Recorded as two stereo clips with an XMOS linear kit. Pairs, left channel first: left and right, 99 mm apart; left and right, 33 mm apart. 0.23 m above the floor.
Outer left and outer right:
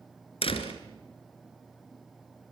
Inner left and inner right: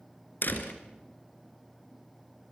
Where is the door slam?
70° left (ahead or behind), 3 m.